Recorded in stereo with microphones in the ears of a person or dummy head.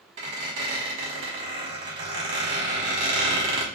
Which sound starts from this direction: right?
A squeak, at 0.2 s.